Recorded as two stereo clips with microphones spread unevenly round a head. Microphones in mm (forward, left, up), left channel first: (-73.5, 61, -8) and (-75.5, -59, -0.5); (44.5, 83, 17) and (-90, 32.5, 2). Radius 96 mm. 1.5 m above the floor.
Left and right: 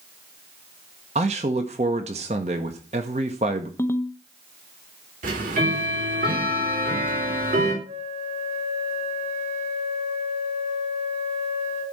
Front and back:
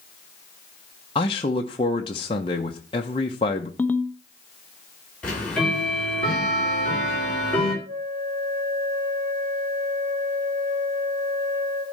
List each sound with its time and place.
1.1 s a man speaking: 40° right, 1.0 m
3.8 s a ringtone: 55° left, 0.8 m
5.2 s ticking: 65° right, 3 m
7.8 s a flute: 105° right, 5 m